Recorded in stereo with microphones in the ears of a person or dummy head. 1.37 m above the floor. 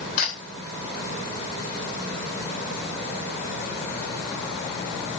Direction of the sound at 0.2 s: 60° left (ahead or behind).